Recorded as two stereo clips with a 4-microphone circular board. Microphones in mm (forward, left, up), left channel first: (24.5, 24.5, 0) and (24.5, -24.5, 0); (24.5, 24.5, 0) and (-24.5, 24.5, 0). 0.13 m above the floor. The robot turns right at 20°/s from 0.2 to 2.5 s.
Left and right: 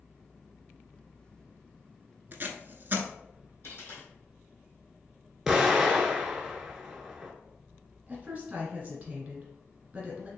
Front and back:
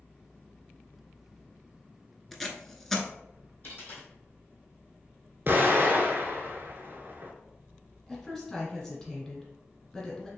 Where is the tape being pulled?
85° right, 0.5 m; by 3.1 s 80° right, 0.5 m.